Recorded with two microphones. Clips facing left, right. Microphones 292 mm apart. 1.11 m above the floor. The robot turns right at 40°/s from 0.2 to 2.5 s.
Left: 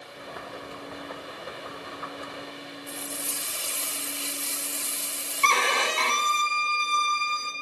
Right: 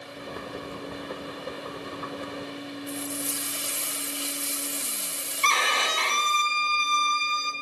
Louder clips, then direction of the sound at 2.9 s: Right 6 dB; 20° right (ahead or behind).